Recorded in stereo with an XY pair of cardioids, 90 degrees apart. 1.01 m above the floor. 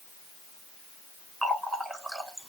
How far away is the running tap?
About 2.5 m.